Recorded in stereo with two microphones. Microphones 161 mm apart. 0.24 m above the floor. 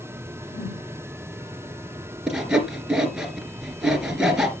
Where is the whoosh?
75° left (ahead or behind), 4.5 m.